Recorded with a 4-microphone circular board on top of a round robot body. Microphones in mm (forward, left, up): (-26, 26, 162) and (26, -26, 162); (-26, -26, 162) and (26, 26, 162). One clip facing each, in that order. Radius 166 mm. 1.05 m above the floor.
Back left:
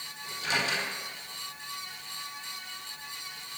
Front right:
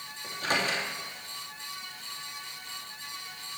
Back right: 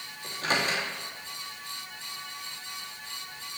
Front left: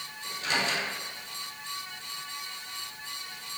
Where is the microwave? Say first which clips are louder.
Front right 1 dB, back right 2 dB; 85° right, 2.5 m.